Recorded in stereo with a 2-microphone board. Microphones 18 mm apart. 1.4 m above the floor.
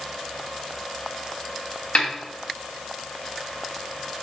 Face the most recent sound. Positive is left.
turn(degrees=85)